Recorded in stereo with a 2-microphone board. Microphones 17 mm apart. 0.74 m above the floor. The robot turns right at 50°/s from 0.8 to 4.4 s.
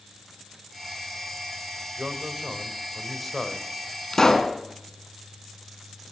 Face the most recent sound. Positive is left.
turn(degrees=45)  # may be behind; listen again after turning